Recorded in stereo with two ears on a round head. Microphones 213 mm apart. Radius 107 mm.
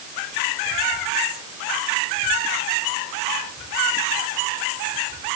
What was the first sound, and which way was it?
Only background noise.